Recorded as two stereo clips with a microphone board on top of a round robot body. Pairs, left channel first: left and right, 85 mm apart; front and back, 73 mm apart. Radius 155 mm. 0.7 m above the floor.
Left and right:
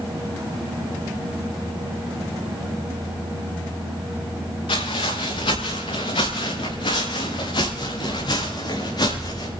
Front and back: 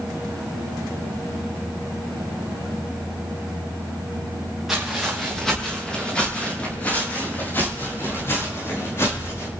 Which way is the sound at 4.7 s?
95° left.